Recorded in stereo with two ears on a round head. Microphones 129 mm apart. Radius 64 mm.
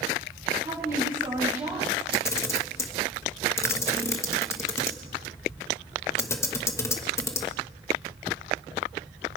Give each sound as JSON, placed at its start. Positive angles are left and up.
{"t": 0.6, "sound": "a woman speaking", "side_deg": -25, "distance_m": 6.0}
{"t": 2.1, "sound": "a camera shutter", "side_deg": 20, "distance_m": 1.3}